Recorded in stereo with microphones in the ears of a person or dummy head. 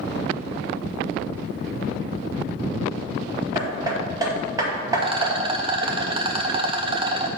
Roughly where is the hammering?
Right.